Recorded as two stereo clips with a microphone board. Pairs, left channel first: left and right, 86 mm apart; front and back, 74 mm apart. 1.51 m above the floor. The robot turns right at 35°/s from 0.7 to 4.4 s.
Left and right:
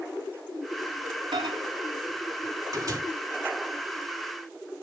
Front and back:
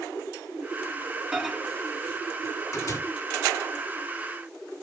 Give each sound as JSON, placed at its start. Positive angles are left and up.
{"t": 1.3, "sound": "a microwave", "azimuth_deg": -100, "distance_m": 3.5}